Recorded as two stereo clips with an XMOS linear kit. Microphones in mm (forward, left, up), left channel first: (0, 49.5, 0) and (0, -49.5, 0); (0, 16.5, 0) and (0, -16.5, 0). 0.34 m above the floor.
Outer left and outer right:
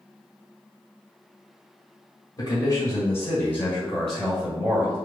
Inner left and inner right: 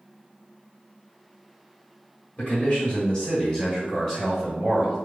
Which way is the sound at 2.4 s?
35° left (ahead or behind).